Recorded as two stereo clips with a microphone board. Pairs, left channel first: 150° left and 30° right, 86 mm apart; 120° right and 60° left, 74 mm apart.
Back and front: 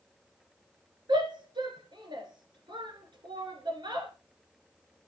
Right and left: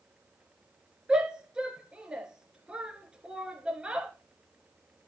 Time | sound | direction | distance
1.1 | a shout | 20° right | 2 m